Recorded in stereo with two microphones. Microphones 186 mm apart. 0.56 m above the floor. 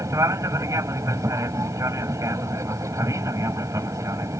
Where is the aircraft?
15° right (ahead or behind).